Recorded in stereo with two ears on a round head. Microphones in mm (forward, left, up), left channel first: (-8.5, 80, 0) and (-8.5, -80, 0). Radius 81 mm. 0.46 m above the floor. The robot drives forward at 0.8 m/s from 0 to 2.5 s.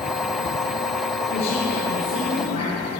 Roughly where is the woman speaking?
Left.